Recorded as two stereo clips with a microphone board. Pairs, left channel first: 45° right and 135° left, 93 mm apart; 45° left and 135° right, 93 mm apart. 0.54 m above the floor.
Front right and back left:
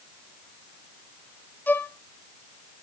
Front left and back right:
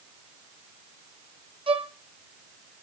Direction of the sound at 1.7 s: 115° right.